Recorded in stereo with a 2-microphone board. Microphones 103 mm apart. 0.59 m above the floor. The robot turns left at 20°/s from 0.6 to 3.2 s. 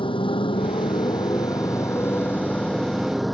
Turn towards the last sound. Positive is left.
turn(degrees=0)